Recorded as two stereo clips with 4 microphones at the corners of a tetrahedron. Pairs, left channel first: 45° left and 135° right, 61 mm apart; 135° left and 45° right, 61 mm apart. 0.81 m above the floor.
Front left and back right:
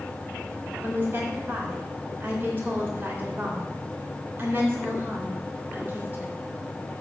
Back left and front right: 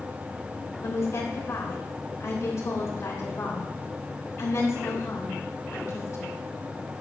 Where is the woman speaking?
170° left, 3 m.